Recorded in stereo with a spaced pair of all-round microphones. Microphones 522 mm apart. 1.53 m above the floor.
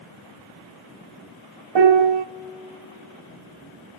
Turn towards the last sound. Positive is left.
turn(degrees=-55)  # may be behind; listen again after turning